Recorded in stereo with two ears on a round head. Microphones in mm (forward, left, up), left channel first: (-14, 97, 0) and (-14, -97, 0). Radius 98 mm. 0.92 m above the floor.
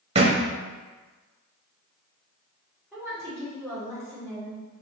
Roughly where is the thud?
Right.